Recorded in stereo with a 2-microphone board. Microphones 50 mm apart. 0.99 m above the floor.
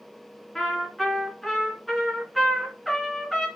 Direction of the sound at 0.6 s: Centre (ahead or behind).